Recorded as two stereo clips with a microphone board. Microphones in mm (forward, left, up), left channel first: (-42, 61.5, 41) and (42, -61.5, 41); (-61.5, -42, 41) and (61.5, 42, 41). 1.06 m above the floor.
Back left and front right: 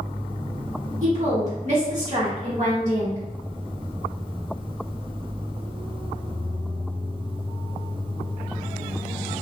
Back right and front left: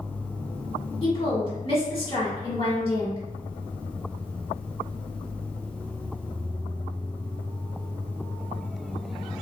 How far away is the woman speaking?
About 1.6 m.